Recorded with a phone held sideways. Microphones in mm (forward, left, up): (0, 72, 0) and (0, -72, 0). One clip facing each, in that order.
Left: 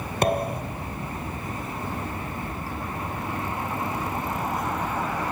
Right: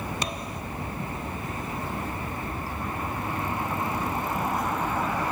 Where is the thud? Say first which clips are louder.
Left 9 dB; 55° left (ahead or behind).